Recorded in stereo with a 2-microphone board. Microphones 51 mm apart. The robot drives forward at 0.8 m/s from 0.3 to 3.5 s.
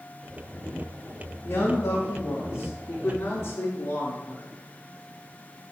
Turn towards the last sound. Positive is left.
turn(degrees=45)  # may be behind; listen again after turning